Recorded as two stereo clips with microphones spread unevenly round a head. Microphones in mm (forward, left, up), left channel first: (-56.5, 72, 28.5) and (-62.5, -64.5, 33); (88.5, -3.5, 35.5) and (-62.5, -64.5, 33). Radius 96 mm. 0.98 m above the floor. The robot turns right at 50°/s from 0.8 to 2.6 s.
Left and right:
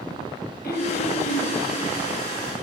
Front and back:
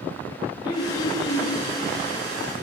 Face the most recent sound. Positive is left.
turn(degrees=180)